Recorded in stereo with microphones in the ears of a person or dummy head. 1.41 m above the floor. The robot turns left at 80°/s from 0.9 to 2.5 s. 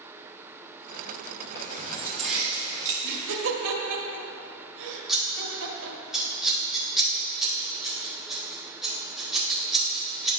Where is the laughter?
70° right (ahead or behind), 1.3 m.